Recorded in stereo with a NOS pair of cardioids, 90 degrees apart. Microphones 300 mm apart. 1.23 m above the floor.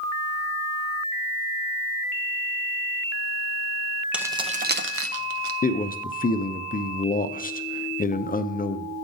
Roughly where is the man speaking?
Ahead left.